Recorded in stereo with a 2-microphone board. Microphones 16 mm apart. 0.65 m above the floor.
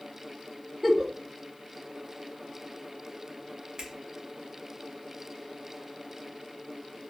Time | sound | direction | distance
0.8 | a giggle | 10° right (ahead or behind) | 0.9 m
3.8 | a finger snap | 55° right (ahead or behind) | 0.8 m